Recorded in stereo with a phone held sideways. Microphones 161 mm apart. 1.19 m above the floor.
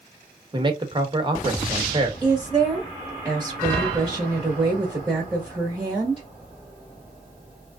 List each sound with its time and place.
0.5 s a man speaking: 30° right (ahead or behind), 1.1 m
2.2 s a woman speaking: 10° right (ahead or behind), 1.4 m